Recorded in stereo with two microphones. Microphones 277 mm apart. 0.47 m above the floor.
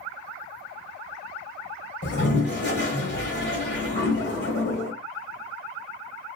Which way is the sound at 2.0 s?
40° left (ahead or behind).